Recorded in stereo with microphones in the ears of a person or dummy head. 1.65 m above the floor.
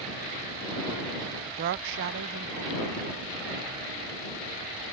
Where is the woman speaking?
15° right (ahead or behind); by 4.9 s 55° right (ahead or behind).